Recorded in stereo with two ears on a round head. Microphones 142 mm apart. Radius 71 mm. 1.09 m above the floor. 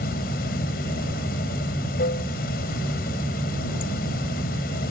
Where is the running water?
65° left (ahead or behind).